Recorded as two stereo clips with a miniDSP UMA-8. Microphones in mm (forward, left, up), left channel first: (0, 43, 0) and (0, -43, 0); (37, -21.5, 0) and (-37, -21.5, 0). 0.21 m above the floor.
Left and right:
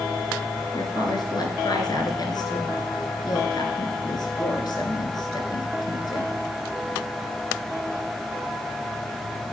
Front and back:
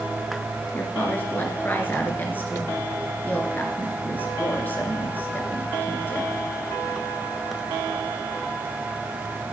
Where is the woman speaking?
60° left, 2.5 m.